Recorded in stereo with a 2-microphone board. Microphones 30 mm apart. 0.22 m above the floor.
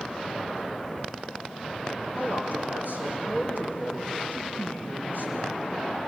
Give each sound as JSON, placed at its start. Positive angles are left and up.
{"t": 2.2, "sound": "a man speaking", "side_deg": -80, "distance_m": 9.5}